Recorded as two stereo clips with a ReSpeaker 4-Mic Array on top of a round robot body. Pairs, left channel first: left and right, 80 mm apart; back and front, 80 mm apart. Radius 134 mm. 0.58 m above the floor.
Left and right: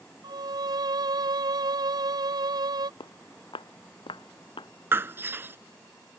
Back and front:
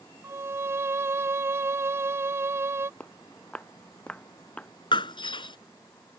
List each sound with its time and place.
0.2 s a violin: 60° right
3.0 s footsteps: 105° left
4.9 s breaking glass: 150° right